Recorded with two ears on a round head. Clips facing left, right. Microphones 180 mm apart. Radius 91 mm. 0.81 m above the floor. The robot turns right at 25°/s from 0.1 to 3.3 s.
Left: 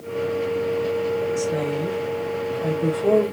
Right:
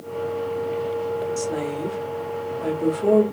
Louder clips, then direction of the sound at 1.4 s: Left 2 dB; 55° right (ahead or behind).